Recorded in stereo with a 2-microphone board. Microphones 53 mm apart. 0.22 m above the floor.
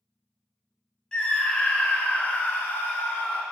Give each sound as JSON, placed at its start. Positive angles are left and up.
{"t": 1.1, "sound": "a scream", "side_deg": 20, "distance_m": 1.7}